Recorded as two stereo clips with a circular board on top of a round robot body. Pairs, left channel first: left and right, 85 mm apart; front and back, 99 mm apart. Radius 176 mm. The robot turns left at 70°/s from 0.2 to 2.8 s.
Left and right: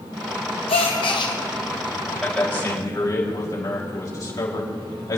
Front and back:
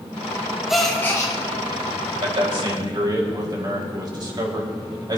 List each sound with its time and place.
0.7 s a gasp: 95° left, 1.2 m; by 1.4 s 50° left, 1.2 m
2.2 s a man speaking: 175° left, 4 m; by 5.2 s 135° left, 4 m